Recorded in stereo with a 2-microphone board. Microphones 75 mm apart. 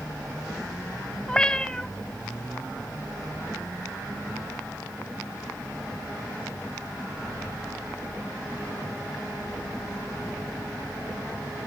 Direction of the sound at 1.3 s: 10° left (ahead or behind).